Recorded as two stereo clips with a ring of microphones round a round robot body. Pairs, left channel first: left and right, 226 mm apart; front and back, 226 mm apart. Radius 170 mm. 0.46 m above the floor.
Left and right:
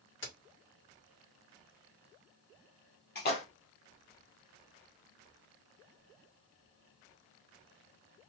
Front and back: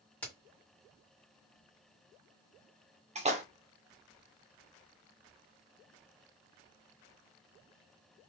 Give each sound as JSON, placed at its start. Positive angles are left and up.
{"t": 0.2, "sound": "a crack", "azimuth_deg": 85, "distance_m": 2.0}
{"t": 3.1, "sound": "a splash", "azimuth_deg": 125, "distance_m": 1.4}